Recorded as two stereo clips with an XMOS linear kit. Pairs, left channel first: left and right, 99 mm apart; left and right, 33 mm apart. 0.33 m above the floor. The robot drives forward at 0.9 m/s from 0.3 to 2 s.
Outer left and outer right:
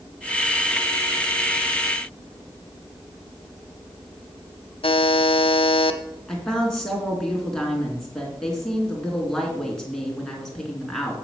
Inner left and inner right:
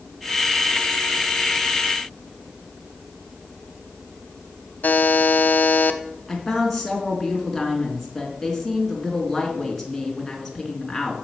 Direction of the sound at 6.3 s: 5° left (ahead or behind).